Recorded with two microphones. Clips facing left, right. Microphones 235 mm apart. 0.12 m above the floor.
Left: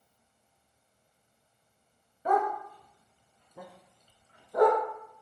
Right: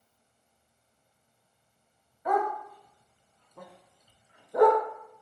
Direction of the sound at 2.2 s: 35° left (ahead or behind).